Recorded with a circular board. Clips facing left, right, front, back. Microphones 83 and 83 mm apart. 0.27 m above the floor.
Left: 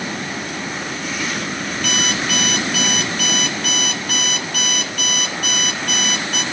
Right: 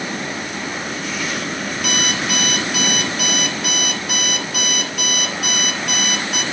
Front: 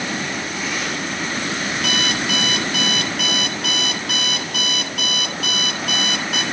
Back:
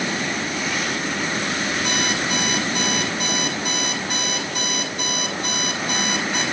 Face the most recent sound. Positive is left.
turn(degrees=-5)